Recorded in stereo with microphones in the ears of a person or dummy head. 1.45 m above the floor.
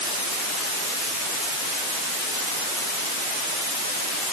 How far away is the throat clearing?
I don't hear throat clearing.